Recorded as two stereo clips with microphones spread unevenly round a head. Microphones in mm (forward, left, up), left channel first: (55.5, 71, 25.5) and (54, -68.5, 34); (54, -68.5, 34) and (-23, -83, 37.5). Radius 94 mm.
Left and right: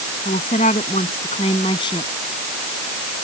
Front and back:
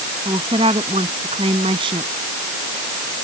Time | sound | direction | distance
0.2 | a woman speaking | 145° left | ?